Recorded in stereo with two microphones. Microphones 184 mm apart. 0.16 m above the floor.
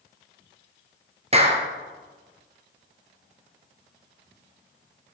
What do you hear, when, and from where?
1.3 s a clap: 35° right (ahead or behind), 2 m